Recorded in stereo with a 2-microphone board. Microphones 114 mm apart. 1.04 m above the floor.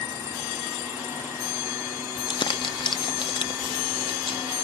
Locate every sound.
2.2 s crumpling: 45° left (ahead or behind), 0.6 m